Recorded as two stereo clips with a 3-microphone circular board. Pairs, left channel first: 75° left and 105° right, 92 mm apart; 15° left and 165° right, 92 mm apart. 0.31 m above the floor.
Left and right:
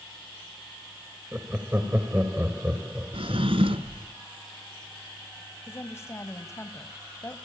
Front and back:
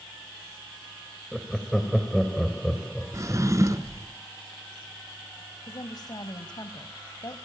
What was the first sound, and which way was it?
Laughter, 70° right.